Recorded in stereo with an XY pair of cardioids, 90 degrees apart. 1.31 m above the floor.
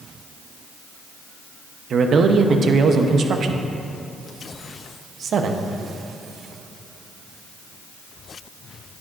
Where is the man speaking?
65° right, 0.7 m.